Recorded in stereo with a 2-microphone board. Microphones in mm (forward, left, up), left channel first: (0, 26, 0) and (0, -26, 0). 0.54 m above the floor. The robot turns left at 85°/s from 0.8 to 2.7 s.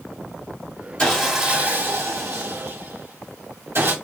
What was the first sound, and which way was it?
Sawing, 25° left.